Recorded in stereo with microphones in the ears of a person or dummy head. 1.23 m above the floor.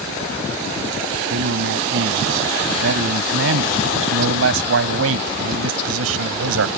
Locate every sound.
1.3 s a man speaking: 75° right (ahead or behind); by 6.7 s 80° right